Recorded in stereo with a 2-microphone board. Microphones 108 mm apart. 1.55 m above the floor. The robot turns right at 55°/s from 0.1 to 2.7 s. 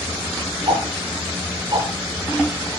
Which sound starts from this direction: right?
Ticking, at 0.7 s.